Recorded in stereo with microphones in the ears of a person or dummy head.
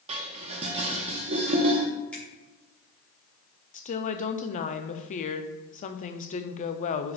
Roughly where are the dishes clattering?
Right.